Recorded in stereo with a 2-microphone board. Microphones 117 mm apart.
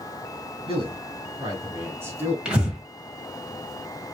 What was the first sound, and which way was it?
A man speaking, 45° right (ahead or behind).